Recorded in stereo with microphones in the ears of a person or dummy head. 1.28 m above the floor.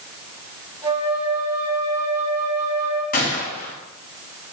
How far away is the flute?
About 4 m.